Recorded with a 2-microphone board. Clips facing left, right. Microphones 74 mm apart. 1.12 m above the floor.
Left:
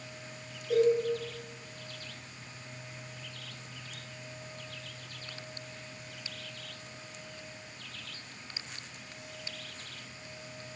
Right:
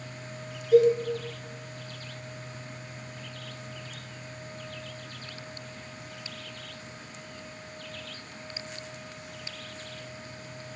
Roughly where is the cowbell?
Left.